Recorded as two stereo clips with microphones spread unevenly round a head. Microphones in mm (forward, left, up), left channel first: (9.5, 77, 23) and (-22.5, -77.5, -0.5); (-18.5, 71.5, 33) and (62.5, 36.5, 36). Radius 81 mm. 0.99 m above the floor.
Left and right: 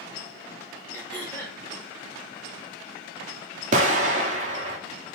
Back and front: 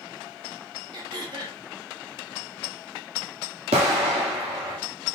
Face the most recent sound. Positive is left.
turn(degrees=-55)